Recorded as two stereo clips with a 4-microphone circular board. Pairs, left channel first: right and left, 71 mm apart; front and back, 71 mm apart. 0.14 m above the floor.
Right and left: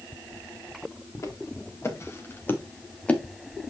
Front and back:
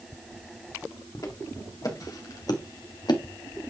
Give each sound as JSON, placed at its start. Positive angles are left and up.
{"t": 1.1, "sound": "footsteps", "azimuth_deg": -40, "distance_m": 4.0}